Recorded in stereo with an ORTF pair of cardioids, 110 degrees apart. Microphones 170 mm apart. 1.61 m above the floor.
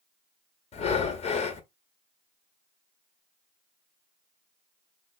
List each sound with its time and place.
0.7 s breathing: 40° left, 1.3 m